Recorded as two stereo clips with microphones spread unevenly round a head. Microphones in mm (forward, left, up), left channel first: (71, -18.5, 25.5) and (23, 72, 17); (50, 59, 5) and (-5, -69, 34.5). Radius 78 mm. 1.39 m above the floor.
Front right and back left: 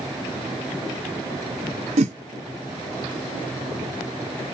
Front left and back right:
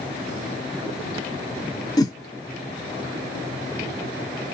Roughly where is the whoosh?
Behind left.